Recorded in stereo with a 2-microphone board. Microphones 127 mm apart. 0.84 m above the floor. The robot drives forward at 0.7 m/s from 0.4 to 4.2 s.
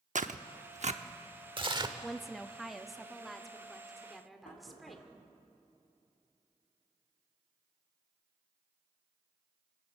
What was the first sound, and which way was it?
Tearing paper, 80° right.